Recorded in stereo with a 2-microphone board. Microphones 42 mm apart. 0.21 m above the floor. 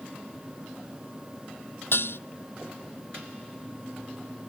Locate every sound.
1.9 s dishes clattering: 70° left (ahead or behind)